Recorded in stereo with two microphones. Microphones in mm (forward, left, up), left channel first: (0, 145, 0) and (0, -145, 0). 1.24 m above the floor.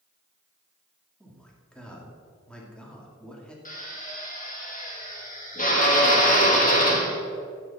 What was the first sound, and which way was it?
A man speaking, 5° left (ahead or behind).